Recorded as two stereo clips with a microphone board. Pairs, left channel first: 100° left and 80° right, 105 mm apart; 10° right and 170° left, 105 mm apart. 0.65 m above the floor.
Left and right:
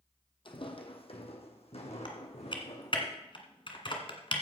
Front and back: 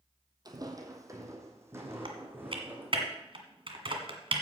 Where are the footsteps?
125° left, 1.2 m; by 3.0 s 100° left, 2.5 m.